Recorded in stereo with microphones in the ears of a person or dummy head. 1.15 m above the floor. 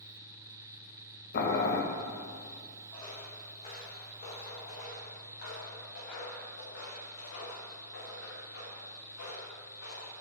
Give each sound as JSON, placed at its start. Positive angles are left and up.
{"t": 1.3, "sound": "boiling", "side_deg": 45, "distance_m": 1.1}
{"t": 2.9, "sound": "footsteps", "side_deg": 25, "distance_m": 2.5}